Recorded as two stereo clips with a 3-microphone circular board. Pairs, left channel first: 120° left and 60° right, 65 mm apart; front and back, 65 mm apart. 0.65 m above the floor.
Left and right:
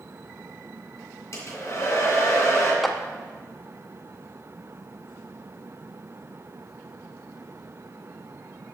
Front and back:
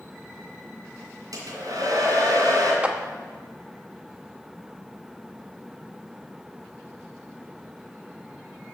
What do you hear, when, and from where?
1.3 s a hair dryer: 160° left, 2.5 m
2.8 s a clap: 155° right, 0.7 m